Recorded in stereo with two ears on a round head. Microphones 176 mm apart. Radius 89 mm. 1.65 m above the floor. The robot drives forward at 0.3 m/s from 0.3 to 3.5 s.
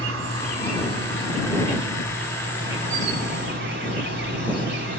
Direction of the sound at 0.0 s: 70° right (ahead or behind).